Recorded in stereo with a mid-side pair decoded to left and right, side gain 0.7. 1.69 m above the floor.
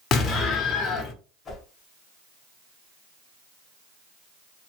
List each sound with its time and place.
0.1 s an explosion: 45° left, 1.1 m
1.4 s a whoosh: 35° left, 1.2 m